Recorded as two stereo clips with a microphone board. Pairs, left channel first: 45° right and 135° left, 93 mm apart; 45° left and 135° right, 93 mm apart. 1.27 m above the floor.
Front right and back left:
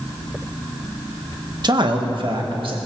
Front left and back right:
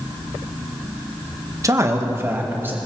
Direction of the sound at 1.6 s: 170° left.